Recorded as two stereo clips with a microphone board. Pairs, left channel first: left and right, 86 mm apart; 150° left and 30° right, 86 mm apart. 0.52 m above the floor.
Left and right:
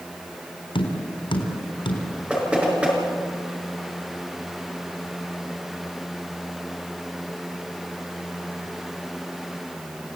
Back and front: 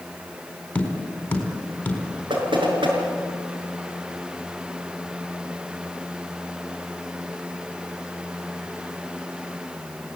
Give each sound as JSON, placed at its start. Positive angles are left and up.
{"t": 0.8, "sound": "tapping", "azimuth_deg": 80, "distance_m": 4.0}
{"t": 2.3, "sound": "knocking", "azimuth_deg": -15, "distance_m": 5.5}